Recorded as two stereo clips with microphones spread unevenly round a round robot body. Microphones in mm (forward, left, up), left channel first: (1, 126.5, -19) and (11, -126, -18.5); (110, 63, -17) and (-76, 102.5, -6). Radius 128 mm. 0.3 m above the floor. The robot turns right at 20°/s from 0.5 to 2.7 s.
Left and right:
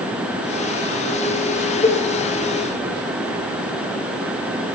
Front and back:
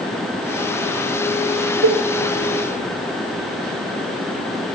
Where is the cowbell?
165° left, 1.0 m.